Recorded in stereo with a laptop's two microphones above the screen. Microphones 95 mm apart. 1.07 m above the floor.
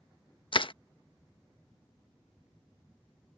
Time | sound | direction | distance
0.5 | crushing | 65° left (ahead or behind) | ?